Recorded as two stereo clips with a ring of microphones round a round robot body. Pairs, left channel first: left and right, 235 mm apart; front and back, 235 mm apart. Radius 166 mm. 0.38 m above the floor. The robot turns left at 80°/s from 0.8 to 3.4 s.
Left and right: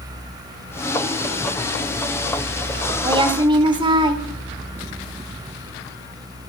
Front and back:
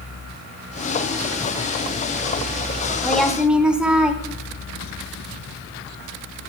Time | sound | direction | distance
3.0 | a woman speaking | 70° right | 0.9 m